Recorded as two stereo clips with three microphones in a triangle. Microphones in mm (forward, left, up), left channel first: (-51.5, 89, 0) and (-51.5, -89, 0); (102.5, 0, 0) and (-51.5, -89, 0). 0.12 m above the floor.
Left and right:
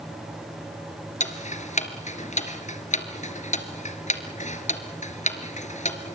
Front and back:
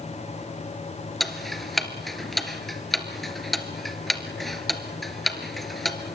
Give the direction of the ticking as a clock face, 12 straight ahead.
8 o'clock.